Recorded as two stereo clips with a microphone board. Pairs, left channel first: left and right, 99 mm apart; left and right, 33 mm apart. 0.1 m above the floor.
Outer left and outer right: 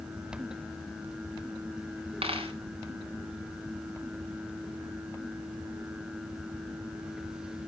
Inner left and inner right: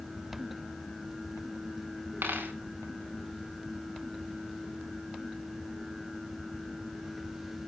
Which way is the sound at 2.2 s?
85° right.